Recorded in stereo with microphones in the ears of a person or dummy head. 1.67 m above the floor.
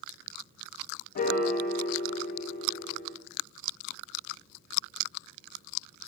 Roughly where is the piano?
Left.